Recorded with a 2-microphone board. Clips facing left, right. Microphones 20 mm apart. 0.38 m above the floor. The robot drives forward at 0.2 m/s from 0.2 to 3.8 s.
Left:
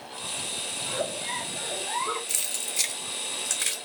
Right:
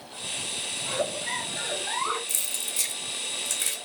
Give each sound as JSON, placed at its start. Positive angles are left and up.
{"t": 0.8, "sound": "a giggle", "side_deg": -70, "distance_m": 2.5}
{"t": 2.3, "sound": "keys jangling", "side_deg": 35, "distance_m": 0.8}